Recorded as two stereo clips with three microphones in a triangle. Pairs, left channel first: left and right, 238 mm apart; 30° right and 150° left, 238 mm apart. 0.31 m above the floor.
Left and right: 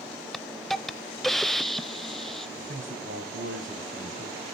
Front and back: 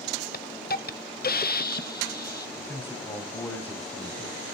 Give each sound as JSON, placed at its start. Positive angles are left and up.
{"t": 0.3, "sound": "a hiss", "azimuth_deg": 0, "distance_m": 0.5}
{"t": 2.6, "sound": "a man speaking", "azimuth_deg": -110, "distance_m": 2.5}